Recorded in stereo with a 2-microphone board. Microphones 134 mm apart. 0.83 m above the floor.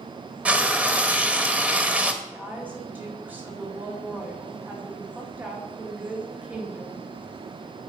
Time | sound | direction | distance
0.5 | frying | 10° right (ahead or behind) | 1.1 m
2.2 | a woman speaking | 15° right (ahead or behind) | 2.5 m